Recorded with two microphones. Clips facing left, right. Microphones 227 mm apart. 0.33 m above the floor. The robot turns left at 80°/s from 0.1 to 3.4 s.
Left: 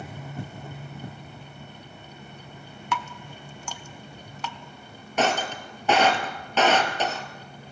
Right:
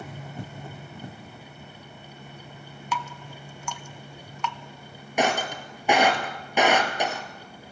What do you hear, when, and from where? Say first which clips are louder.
2.9 s dripping: left 1 dB; 70° left (ahead or behind), 1.0 m; by 4.6 s 40° left (ahead or behind), 1.0 m
5.2 s breaking glass: even; 15° right (ahead or behind), 2.5 m